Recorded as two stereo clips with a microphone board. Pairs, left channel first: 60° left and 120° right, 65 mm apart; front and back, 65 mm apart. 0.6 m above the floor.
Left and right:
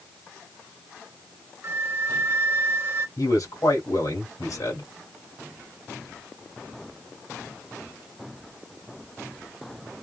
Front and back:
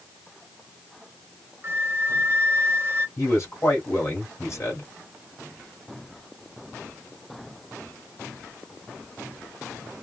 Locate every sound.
1.6 s a flute: 150° right, 0.6 m
3.2 s a man speaking: 40° left, 2 m